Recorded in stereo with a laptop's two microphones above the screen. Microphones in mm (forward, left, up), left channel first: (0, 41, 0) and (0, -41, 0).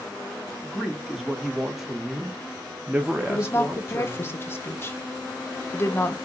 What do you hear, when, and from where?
0.6 s a man speaking: centre (ahead or behind), 1.6 m; by 4.3 s 10° right (ahead or behind), 1.1 m
3.3 s a woman speaking: 30° left (ahead or behind), 0.7 m